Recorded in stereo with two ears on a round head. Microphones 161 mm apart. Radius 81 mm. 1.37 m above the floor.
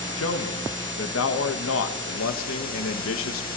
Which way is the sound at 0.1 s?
80° left.